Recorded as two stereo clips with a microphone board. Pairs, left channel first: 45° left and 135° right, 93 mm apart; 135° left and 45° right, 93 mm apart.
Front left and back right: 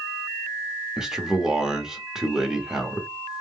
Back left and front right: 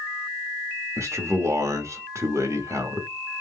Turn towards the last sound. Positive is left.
turn(degrees=-55)